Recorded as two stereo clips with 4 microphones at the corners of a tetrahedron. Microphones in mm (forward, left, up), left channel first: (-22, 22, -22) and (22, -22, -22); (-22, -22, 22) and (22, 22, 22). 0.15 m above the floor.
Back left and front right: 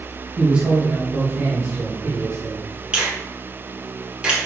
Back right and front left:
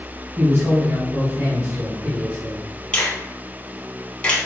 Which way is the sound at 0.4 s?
30° left.